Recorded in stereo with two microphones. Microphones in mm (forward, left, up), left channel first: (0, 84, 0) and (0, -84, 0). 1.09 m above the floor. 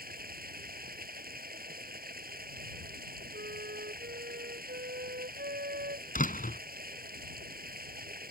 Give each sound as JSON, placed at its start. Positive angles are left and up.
{"t": 0.0, "sound": "running water", "side_deg": -60}
{"t": 3.3, "sound": "a flute", "side_deg": -85}
{"t": 6.2, "sound": "a door slam", "side_deg": 55}